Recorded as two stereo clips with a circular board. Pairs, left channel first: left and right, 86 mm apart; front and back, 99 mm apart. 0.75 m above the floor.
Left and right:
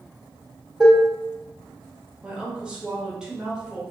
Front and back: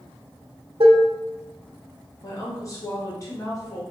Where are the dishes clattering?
170° right, 0.6 m.